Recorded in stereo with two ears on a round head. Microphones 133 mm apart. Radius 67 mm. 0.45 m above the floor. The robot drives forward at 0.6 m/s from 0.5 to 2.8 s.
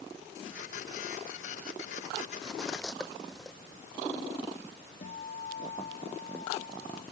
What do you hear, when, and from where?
2.4 s cutlery clinking: 5° left (ahead or behind)
5.0 s a guitar: 45° left (ahead or behind)